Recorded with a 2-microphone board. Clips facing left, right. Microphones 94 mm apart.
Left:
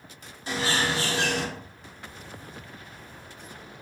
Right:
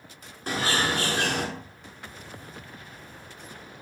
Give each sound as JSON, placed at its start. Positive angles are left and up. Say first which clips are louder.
{"t": 0.5, "sound": "a bird", "louder": "right 1 dB", "side_deg": -50, "distance_m": 0.5}